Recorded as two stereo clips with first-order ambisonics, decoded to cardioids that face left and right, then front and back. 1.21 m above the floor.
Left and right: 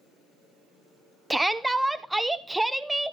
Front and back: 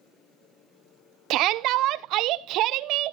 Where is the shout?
175° right, 0.6 m.